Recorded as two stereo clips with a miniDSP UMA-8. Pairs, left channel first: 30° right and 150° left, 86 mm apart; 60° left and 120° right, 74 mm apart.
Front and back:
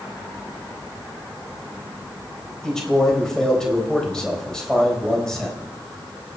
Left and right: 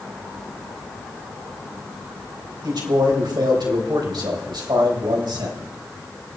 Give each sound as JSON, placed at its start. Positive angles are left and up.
{"t": 2.6, "sound": "a man speaking", "azimuth_deg": -115, "distance_m": 3.5}